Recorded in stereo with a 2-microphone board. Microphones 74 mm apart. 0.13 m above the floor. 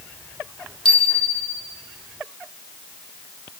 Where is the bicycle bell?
15° left (ahead or behind), 4 m.